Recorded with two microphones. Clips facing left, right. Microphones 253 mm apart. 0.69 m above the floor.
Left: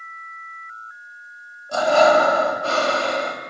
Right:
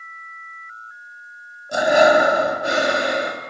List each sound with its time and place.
1.7 s breathing: 15° right (ahead or behind), 1.1 m